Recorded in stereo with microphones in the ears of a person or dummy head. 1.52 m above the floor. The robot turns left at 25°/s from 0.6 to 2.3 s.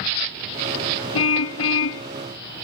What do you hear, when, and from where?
1.1 s a car horn: 80° left; by 2.1 s 75° left (ahead or behind)